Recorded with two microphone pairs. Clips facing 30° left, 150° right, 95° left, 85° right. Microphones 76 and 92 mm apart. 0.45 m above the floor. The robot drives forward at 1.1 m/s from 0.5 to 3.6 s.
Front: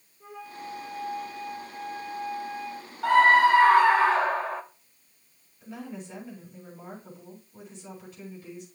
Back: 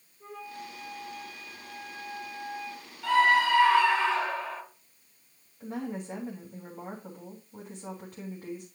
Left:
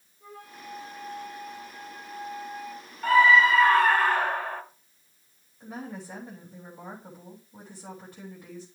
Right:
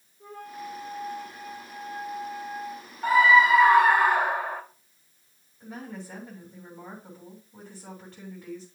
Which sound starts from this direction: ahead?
A scream, at 3.0 s.